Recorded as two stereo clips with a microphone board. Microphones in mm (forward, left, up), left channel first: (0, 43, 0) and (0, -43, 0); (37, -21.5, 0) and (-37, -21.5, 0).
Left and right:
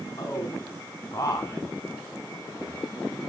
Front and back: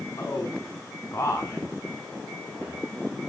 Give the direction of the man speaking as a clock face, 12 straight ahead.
10 o'clock.